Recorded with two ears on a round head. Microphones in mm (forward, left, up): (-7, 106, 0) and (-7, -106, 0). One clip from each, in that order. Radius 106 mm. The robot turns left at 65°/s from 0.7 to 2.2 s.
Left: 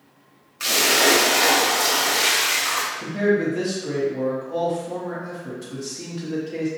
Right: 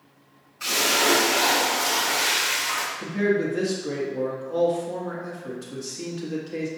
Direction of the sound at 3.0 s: 5° right (ahead or behind).